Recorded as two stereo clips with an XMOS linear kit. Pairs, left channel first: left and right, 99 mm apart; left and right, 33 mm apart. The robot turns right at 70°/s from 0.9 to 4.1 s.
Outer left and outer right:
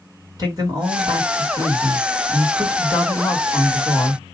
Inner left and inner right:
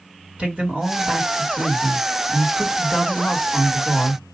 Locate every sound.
0.4 s a man speaking: 130° right, 2.5 m; by 4.2 s 95° left, 2.5 m